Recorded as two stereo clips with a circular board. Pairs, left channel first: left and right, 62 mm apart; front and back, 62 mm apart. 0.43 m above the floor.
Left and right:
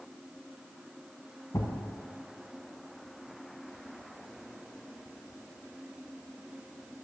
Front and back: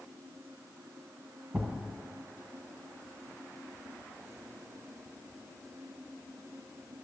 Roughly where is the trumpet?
I don't hear a trumpet.